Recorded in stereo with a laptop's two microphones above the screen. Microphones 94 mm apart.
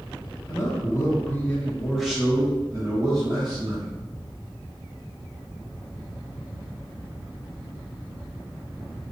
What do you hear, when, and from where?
0.5 s a man speaking: 40° left (ahead or behind), 1.2 m; by 3.9 s 55° right (ahead or behind), 1.2 m